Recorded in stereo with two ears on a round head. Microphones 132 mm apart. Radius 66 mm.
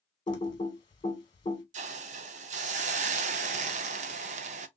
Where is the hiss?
50° right (ahead or behind), 0.6 m.